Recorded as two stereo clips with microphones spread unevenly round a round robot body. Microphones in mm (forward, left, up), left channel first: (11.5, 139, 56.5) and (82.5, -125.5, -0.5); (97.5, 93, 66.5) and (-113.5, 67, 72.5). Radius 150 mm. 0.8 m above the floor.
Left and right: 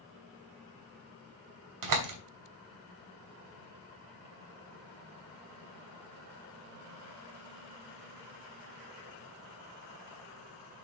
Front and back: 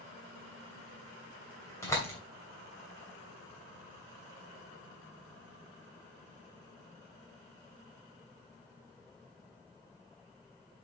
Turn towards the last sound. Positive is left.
turn(degrees=-75)